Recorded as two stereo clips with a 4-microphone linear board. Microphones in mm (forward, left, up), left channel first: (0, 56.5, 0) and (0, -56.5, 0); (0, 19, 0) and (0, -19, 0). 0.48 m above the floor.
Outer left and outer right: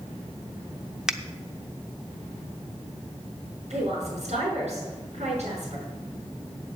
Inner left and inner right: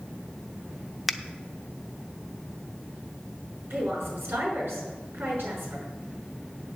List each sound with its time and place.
1.1 s a finger snap: 5° right (ahead or behind), 0.6 m
3.7 s a woman speaking: 75° right (ahead or behind), 5.5 m